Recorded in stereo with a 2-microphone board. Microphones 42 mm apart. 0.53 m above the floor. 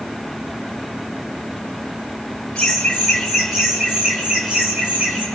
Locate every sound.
2.5 s laughter: 20° left (ahead or behind), 1.9 m; by 5.2 s 30° right (ahead or behind), 4.5 m